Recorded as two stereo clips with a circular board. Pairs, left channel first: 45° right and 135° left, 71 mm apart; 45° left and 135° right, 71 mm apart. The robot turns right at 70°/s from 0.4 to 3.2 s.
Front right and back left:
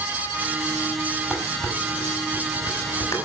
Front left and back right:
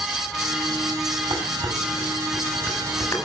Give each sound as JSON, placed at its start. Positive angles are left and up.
{"t": 1.3, "sound": "dishes clattering", "azimuth_deg": -135, "distance_m": 6.0}